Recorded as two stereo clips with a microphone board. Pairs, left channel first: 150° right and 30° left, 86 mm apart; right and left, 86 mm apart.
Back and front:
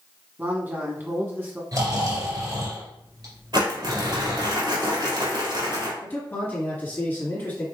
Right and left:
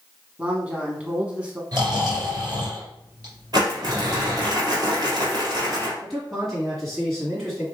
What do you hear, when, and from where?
0.4 s a man speaking: 40° left, 1.0 m
1.7 s snoring: 60° left, 2.5 m
3.5 s crumpling: 55° left, 2.5 m
6.0 s a man speaking: straight behind, 1.8 m